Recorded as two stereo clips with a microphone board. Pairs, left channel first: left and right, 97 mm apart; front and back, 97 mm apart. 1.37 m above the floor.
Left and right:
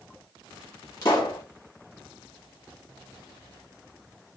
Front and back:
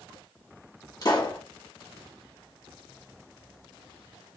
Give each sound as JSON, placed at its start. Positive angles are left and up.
{"t": 1.0, "sound": "a pop", "azimuth_deg": 40, "distance_m": 1.2}